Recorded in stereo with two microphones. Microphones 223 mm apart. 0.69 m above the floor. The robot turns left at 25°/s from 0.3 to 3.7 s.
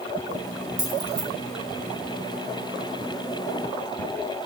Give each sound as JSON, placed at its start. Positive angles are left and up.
{"t": 0.8, "sound": "keys jangling", "side_deg": -65, "distance_m": 3.5}